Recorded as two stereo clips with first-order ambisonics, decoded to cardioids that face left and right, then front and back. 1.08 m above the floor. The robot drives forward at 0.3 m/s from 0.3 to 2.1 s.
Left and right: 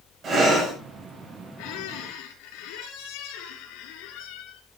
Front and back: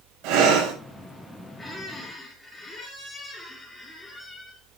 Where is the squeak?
80° left, 4 m; by 4.6 s 85° left, 4 m.